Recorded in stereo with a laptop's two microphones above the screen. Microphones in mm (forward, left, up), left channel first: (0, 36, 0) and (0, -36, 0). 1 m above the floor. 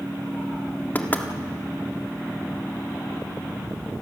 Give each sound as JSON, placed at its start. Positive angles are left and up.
{"t": 0.9, "sound": "knocking", "side_deg": 25, "distance_m": 1.4}